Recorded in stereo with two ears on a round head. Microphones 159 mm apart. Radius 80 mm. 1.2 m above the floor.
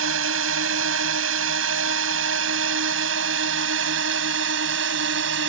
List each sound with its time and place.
0.0 s a drone: 85° right; by 5.5 s 75° right (ahead or behind)